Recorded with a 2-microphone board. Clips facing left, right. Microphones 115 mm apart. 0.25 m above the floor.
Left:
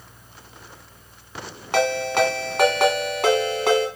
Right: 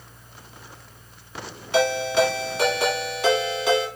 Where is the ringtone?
55° left (ahead or behind), 1.5 m.